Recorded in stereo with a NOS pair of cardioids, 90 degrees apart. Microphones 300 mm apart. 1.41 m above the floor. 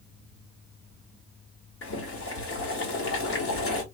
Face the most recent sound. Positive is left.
turn(degrees=50)